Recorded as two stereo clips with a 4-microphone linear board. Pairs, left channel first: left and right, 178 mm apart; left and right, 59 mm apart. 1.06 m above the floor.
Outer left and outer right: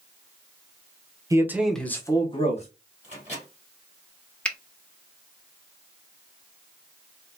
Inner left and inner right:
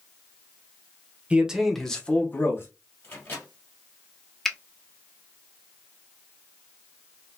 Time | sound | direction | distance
1.3 | a man speaking | 20° right (ahead or behind) | 0.7 m
3.0 | a microwave | 40° left (ahead or behind) | 2.5 m
4.5 | a finger snap | 5° left (ahead or behind) | 0.5 m